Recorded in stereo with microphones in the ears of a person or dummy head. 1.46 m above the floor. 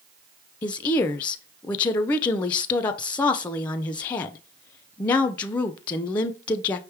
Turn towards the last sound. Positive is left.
turn(degrees=25)  # may be behind; listen again after turning